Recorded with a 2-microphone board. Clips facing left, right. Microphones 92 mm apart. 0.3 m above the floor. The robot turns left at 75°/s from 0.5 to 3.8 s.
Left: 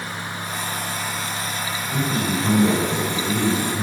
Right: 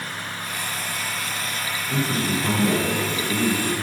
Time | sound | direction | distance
1.9 | a man speaking | 130° right | 3 m